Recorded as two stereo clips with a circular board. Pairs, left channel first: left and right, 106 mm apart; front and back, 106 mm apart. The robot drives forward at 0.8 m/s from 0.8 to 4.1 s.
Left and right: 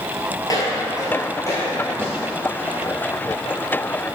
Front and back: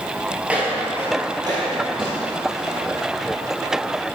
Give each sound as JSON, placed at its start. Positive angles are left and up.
{"t": 0.5, "sound": "footsteps", "azimuth_deg": 105, "distance_m": 1.6}